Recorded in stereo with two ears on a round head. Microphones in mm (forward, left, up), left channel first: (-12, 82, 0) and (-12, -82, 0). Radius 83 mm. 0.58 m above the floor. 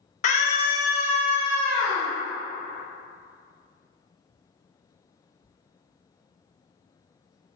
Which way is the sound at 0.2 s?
40° left (ahead or behind).